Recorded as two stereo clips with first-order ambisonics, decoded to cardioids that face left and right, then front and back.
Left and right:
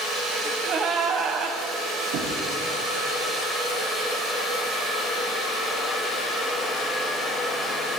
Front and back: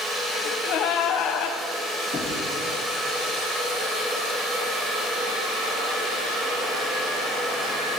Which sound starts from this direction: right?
Knocking, at 2.1 s.